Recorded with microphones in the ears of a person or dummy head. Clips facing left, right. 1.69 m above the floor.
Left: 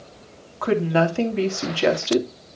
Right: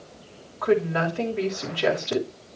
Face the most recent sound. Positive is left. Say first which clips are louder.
# left 2 dB
turn(degrees=55)  # may be behind; listen again after turning